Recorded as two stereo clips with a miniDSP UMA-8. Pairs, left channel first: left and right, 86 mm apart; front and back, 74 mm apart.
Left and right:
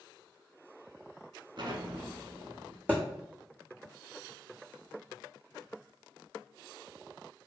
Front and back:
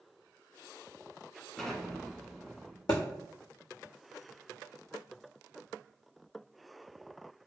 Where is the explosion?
85° right, 0.6 m.